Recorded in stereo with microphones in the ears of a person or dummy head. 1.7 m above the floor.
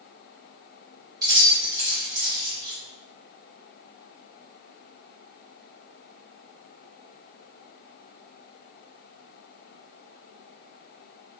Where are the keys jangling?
30° right (ahead or behind), 1.5 m.